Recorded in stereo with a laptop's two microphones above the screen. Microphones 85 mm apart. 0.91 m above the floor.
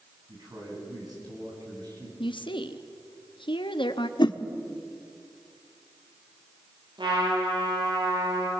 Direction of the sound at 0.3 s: 50° right (ahead or behind).